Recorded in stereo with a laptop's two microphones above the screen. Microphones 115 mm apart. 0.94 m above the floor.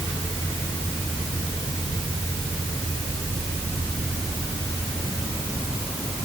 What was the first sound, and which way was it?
Only background noise.